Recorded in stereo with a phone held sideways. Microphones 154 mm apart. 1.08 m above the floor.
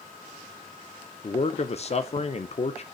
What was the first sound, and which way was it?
A man speaking, 45° left (ahead or behind).